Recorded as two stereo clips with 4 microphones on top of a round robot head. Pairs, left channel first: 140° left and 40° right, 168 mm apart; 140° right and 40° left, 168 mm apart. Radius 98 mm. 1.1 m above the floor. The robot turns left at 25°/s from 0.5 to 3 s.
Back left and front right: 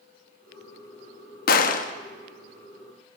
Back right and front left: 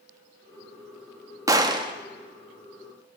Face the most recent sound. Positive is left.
turn(degrees=70)